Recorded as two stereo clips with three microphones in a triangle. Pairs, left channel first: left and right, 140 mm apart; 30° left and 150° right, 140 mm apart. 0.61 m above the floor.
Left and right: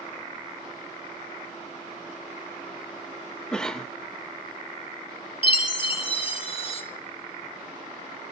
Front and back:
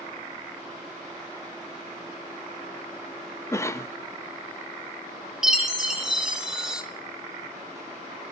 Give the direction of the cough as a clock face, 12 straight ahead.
11 o'clock.